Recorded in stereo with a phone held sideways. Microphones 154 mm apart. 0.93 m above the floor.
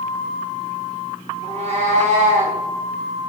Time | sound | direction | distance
1.4 | a cat meowing | 45° right (ahead or behind) | 1.9 m